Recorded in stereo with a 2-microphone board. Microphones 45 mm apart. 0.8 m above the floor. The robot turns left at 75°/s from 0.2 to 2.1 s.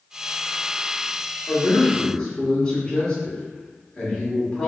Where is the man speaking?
65° left, 1.6 m; by 4.7 s 15° left, 1.6 m.